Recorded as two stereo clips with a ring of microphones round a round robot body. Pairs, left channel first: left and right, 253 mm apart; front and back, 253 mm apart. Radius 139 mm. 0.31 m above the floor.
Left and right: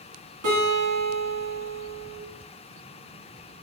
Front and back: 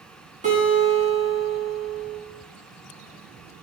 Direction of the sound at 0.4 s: 120° right.